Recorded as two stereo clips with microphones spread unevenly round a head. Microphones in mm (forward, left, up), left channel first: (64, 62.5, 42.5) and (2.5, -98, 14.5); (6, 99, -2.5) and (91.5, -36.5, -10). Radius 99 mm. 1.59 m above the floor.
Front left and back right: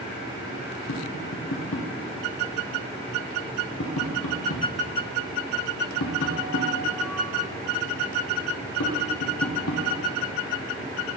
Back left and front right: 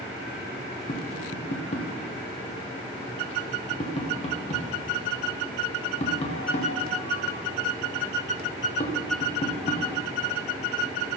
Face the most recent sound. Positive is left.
turn(degrees=70)